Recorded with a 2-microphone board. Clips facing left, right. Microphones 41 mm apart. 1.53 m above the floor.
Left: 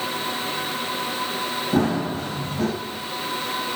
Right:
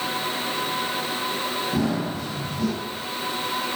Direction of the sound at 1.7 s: 50° left (ahead or behind).